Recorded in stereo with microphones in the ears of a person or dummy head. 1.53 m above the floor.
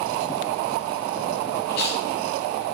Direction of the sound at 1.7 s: 65° left (ahead or behind).